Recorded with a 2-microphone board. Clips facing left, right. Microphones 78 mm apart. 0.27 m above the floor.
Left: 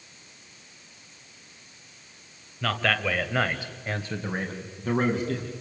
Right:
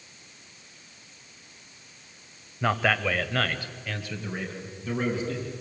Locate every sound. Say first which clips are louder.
2.6 s a man speaking: right 2 dB; 20° right (ahead or behind), 1.3 m; by 5.5 s 55° left (ahead or behind), 3 m